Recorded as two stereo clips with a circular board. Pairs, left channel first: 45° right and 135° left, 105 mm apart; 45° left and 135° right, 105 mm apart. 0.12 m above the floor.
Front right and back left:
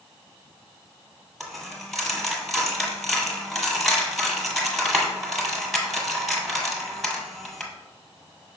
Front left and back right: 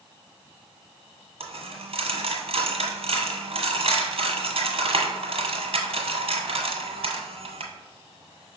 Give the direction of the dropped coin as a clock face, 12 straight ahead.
4 o'clock.